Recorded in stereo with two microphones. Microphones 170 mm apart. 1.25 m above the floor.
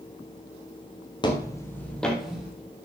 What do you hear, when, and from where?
1.2 s footsteps: 30° left (ahead or behind), 1.6 m; by 2.5 s 5° right (ahead or behind), 2.5 m